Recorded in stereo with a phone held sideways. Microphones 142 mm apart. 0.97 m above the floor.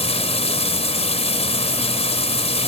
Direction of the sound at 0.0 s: 45° left (ahead or behind).